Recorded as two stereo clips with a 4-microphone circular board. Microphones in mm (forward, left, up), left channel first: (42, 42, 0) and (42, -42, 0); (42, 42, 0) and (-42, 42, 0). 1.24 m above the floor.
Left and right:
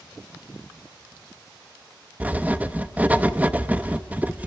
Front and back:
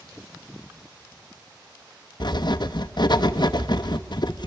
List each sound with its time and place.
2.2 s writing: 20° right, 0.9 m